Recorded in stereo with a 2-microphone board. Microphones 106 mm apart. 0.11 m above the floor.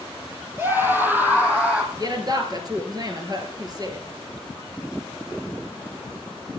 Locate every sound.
0.6 s a scream: 20° right (ahead or behind), 2.5 m; by 1.8 s 10° right (ahead or behind), 4 m
1.9 s a woman speaking: 40° right (ahead or behind), 2 m